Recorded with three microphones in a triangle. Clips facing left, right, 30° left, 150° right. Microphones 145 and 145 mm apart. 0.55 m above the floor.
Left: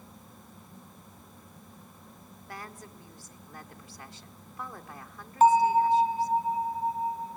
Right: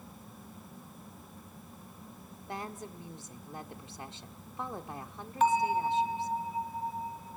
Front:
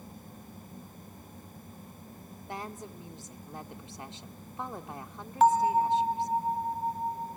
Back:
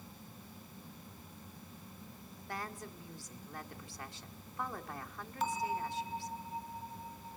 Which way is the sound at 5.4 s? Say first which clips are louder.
Left 7 dB, front 13 dB; 40° left.